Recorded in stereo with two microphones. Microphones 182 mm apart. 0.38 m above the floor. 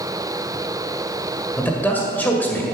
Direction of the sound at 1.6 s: 10° left (ahead or behind).